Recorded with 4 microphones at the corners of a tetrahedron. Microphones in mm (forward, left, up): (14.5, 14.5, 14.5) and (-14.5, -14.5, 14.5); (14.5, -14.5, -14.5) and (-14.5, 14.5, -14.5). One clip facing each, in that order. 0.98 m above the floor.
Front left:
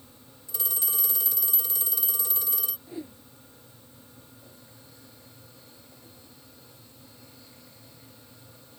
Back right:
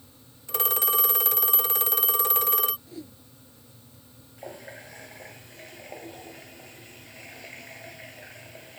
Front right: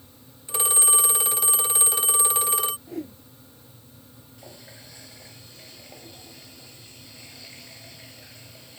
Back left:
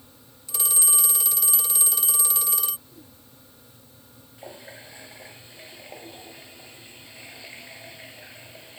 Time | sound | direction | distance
0.5 | a phone ringing | 100° right | ?
2.9 | a whoosh | 20° right | ?
4.4 | a running tap | 160° right | ?